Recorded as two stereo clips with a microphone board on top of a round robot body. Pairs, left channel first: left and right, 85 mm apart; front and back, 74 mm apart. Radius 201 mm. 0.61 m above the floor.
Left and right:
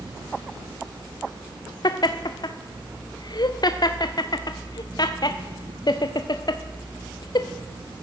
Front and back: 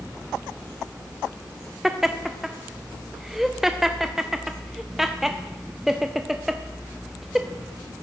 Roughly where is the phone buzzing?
No phone buzzing in this recording.